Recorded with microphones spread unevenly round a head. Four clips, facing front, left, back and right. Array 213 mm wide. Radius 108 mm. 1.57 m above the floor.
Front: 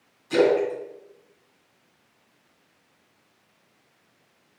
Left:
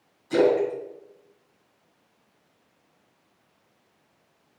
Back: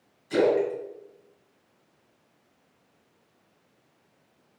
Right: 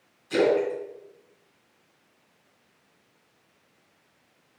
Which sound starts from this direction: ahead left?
A splash, at 0.3 s.